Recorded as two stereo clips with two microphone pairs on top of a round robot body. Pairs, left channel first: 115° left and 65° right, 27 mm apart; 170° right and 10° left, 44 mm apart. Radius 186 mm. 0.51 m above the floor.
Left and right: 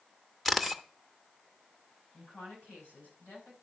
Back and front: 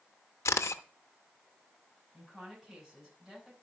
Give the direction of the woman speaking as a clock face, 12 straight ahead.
9 o'clock.